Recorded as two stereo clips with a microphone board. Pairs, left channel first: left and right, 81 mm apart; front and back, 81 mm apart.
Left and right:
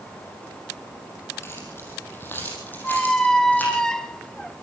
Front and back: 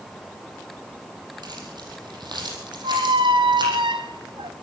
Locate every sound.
1.4 s keys jangling: 150° left, 6 m; by 3.8 s 160° left, 8.5 m
2.8 s a squeak: 170° left, 0.7 m